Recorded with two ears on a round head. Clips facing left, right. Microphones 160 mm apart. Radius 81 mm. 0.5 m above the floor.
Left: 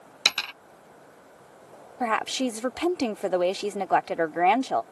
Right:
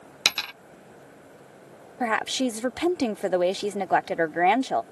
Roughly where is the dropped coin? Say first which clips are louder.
Even; centre.